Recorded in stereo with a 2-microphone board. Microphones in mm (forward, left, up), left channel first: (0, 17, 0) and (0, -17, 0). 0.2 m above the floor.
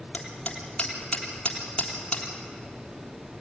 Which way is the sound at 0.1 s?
30° left (ahead or behind).